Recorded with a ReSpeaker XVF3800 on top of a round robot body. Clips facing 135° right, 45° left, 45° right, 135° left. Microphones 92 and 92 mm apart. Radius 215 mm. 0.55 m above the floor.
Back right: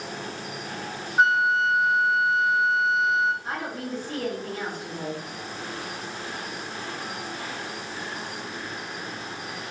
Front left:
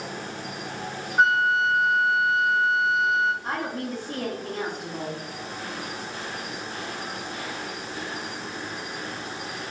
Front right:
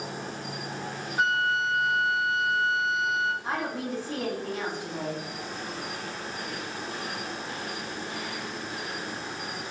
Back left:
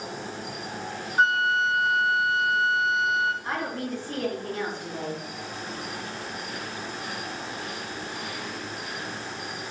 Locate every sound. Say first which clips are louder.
0.0 s an insect: even, back left 1 dB; 15° right, 1.4 m
1.2 s a flute: even, back left 3 dB; 135° left, 0.7 m
3.4 s a woman speaking: front left 2 dB, even; 25° left, 1.6 m